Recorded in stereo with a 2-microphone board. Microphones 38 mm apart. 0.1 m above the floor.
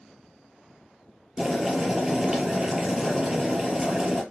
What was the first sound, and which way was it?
Boiling, 15° right (ahead or behind).